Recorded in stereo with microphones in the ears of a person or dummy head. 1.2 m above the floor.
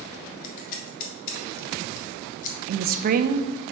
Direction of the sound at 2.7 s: 45° right (ahead or behind).